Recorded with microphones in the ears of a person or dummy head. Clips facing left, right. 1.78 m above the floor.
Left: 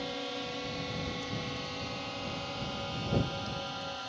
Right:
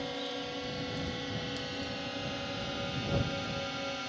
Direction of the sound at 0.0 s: Centre (ahead or behind).